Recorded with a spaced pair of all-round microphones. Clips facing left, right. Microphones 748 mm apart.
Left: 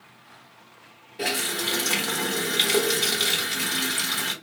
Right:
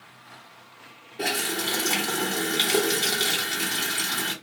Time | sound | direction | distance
1.2 | a running tap | 20° left (ahead or behind) | 1.2 m